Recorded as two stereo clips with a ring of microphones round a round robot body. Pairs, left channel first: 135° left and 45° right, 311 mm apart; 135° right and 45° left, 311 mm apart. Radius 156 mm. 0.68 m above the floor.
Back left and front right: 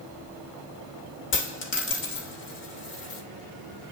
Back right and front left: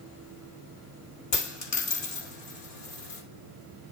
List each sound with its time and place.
1.3 s a dropped coin: 170° right, 2 m